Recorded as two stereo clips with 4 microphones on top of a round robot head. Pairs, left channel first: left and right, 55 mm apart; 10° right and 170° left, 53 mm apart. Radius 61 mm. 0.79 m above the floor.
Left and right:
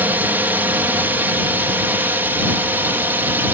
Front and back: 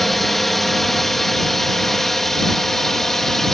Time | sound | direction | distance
0.0 | a drone | 90° right | ?